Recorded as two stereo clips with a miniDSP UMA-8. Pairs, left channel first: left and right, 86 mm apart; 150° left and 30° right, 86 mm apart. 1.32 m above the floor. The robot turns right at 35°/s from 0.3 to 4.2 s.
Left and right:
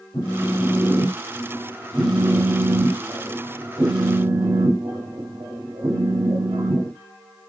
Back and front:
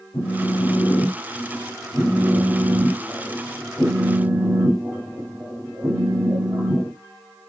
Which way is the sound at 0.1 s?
140° left.